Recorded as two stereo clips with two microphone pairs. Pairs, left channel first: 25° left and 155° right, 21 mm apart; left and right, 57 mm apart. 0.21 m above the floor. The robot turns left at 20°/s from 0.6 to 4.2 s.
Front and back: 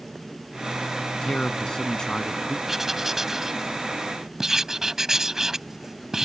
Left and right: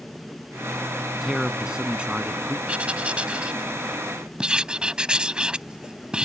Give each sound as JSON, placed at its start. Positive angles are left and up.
{"t": 1.2, "sound": "a man speaking", "azimuth_deg": -10}
{"t": 2.7, "sound": "writing", "azimuth_deg": -110}